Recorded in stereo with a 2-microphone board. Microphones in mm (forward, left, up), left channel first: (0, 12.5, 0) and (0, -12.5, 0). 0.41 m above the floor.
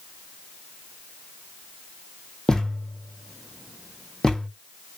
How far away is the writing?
I don't hear writing.